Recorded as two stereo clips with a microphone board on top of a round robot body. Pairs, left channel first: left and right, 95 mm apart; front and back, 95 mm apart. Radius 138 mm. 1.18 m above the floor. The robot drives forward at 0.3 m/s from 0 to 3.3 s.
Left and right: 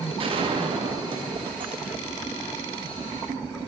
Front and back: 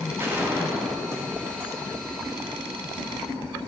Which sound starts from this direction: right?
A gunshot, at 0.2 s.